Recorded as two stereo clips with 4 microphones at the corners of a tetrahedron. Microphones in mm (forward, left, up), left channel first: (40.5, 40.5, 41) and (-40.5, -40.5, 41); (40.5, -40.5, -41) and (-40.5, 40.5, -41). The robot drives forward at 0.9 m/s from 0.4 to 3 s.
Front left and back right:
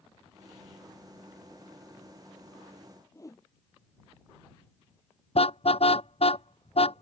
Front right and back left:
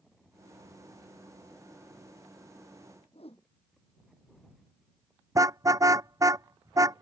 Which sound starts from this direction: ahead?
A whoosh, at 3.1 s.